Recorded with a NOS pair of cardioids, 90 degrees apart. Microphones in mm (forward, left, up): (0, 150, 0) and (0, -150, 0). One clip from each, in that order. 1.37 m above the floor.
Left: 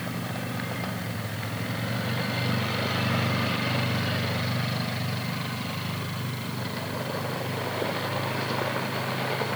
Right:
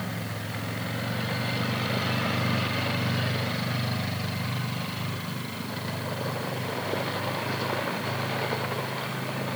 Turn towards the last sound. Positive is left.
No sound to turn to.